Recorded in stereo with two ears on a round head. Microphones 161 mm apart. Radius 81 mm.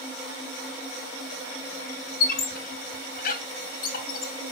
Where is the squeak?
55° left (ahead or behind), 0.6 m.